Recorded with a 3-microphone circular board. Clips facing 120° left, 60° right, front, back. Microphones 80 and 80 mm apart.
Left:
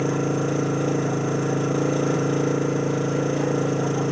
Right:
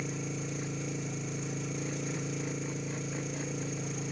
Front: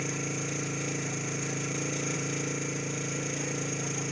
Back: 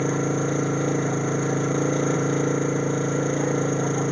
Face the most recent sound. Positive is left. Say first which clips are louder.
# left 15 dB, back 11 dB
turn(degrees=140)